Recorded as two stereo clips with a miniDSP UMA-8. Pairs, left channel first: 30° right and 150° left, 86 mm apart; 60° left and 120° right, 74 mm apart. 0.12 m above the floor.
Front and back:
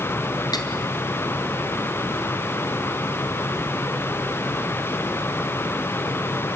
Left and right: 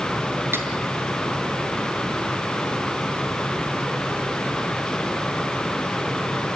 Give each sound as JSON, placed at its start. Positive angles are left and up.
{"t": 0.5, "sound": "cutlery clinking", "azimuth_deg": -65, "distance_m": 2.0}